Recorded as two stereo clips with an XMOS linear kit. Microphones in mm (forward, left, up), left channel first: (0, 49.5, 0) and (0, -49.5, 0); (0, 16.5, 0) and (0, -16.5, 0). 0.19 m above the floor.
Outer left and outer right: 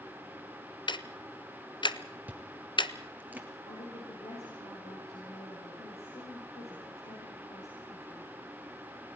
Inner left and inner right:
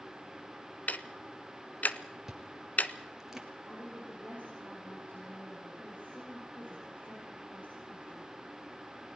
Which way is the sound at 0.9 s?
55° left (ahead or behind).